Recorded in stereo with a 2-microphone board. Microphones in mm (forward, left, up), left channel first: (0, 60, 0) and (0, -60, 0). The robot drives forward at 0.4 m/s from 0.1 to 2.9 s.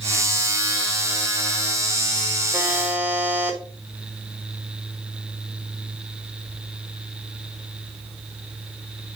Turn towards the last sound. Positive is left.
turn(degrees=-15)  # may be behind; listen again after turning